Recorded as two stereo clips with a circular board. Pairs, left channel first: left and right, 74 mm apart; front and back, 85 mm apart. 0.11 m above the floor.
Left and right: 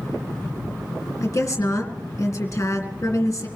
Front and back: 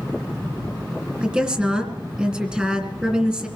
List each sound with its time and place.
1.2 s a woman speaking: 110° left, 2 m